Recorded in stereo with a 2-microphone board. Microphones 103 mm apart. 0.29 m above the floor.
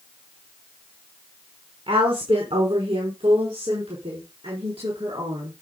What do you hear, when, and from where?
1.9 s a woman speaking: 65° right (ahead or behind), 3 m; by 5.5 s 70° right (ahead or behind), 5 m